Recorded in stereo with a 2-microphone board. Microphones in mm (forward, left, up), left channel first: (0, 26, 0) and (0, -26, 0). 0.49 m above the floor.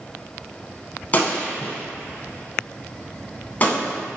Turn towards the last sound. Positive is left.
turn(degrees=30)  # may be behind; listen again after turning